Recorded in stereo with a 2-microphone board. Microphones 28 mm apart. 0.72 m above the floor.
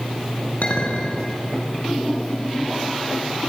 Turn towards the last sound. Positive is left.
turn(degrees=70)  # may be behind; listen again after turning